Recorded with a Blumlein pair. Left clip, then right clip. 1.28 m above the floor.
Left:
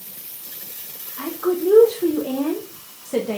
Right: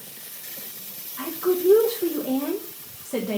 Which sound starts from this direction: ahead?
A woman speaking, at 1.2 s.